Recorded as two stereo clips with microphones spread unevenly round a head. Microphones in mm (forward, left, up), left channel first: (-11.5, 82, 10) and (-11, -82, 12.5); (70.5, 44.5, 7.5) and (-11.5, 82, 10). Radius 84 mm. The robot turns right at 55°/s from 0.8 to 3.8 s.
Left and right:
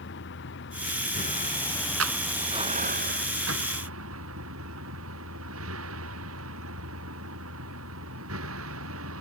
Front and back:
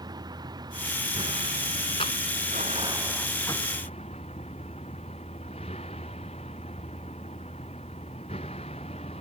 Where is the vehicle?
110° left; by 9.2 s 85° right.